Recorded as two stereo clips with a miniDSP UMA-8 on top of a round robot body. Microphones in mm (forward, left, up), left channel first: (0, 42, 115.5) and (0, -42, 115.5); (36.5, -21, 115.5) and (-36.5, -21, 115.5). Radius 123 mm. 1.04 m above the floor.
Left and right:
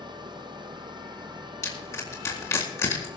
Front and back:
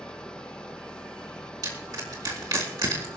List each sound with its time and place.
0.0 s an engine running: 75° right, 0.7 m
1.6 s crushing: 145° left, 4 m